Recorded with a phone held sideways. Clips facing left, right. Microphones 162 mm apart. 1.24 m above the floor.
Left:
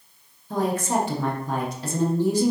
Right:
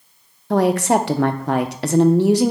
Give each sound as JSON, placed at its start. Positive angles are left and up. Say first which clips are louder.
{"t": 0.5, "sound": "a woman speaking", "louder": "right 8 dB", "side_deg": -75, "distance_m": 0.6}